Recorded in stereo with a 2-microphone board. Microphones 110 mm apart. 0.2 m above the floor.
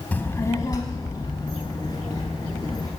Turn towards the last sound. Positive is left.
turn(degrees=40)  # may be behind; listen again after turning